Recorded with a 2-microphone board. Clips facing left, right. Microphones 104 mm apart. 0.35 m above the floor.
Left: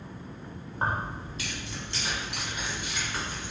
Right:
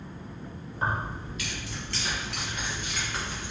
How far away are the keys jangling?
About 1.4 m.